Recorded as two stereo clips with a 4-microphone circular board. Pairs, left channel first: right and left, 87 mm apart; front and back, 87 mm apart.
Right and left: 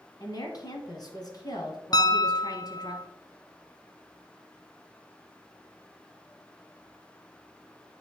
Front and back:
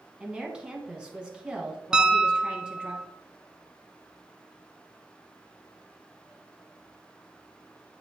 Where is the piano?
100° right, 0.5 m.